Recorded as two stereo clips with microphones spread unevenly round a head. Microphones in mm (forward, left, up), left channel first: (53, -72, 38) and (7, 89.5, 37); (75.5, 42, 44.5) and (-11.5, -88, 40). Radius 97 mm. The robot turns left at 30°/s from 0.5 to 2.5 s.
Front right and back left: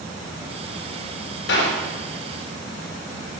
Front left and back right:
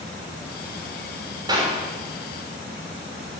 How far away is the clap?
About 6 m.